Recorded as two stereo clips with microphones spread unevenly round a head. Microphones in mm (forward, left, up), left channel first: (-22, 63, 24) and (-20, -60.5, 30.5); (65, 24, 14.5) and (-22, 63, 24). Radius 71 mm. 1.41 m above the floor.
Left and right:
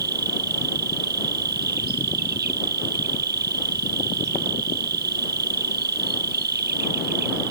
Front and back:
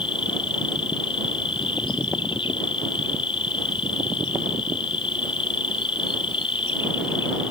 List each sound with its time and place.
0.0 s an insect: 85° right